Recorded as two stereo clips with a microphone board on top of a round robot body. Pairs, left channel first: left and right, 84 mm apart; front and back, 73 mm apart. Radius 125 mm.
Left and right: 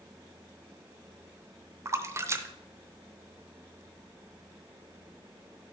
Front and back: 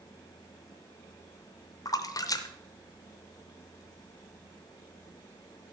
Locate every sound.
1.9 s a splash: 35° right, 0.8 m